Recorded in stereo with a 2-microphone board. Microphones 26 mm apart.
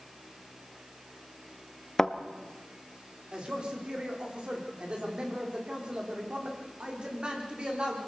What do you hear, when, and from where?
2.0 s a thud: 15° left (ahead or behind), 1.1 m
3.3 s a man speaking: 40° right (ahead or behind), 4.5 m